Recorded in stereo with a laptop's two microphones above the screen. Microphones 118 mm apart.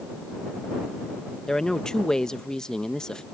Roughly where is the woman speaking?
Centre.